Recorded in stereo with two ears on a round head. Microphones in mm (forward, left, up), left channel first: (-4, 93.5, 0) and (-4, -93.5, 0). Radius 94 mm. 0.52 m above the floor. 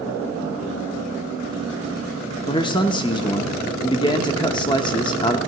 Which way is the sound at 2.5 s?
20° left (ahead or behind).